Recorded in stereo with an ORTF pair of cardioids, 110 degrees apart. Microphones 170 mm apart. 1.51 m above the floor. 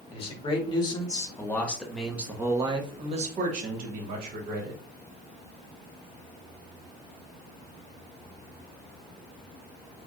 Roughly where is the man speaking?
Ahead left.